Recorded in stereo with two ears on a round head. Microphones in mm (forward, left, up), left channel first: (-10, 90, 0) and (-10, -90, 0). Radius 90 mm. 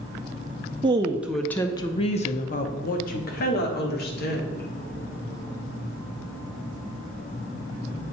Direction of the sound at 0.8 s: 25° right (ahead or behind).